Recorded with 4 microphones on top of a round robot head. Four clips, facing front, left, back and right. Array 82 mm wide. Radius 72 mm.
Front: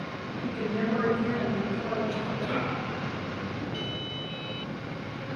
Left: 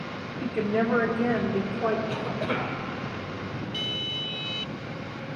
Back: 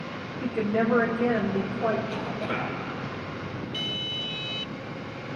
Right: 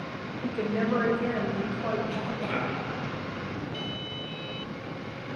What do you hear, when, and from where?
0.4 s a woman speaking: 125° left, 4 m
2.1 s a cough: 95° left, 7.5 m